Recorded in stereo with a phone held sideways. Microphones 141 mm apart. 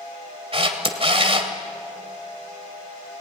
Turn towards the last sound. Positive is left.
turn(degrees=-40)  # may be behind; listen again after turning